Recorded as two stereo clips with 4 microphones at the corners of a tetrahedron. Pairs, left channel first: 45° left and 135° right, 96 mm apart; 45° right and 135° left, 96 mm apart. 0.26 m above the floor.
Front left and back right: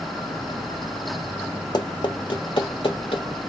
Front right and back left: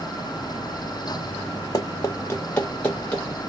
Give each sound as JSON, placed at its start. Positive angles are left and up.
{"t": 1.7, "sound": "running footsteps", "azimuth_deg": 5, "distance_m": 0.9}